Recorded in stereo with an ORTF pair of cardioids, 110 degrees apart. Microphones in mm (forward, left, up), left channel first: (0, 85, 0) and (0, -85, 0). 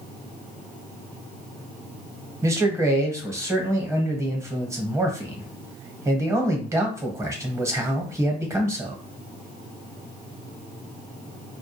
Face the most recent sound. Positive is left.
turn(degrees=-15)